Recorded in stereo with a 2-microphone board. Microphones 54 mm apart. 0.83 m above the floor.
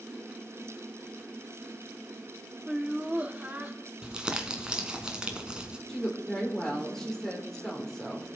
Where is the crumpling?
15° right (ahead or behind), 1.5 m.